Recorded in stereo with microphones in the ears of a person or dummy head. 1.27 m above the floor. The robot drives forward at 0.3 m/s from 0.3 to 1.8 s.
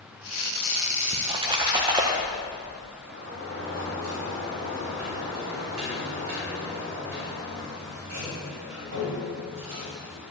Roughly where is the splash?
Right.